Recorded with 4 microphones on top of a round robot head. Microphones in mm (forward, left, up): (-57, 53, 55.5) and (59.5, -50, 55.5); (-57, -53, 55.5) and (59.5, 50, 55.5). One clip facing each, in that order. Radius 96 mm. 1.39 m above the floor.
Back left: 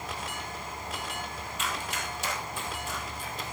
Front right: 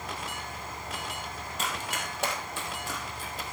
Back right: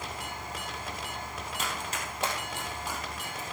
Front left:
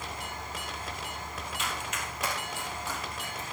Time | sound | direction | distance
1.6 | running footsteps | 90° right | 2 m